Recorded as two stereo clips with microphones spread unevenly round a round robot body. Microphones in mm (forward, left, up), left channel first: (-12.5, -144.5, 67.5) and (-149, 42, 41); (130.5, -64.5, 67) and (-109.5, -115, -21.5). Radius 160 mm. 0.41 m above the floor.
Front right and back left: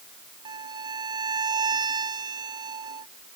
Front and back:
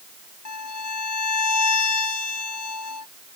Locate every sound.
0.5 s a violin: 50° left